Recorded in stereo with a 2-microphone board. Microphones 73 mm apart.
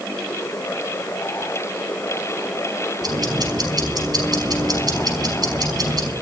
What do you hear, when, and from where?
3.0 s ticking: 65° right (ahead or behind), 5.5 m